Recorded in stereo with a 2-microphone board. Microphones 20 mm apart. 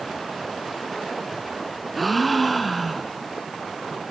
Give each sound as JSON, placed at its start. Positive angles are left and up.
{"t": 1.9, "sound": "a gasp", "side_deg": 5, "distance_m": 2.0}